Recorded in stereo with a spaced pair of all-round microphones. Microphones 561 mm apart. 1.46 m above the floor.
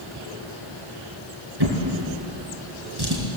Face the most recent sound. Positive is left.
turn(degrees=-45)  # may be behind; listen again after turning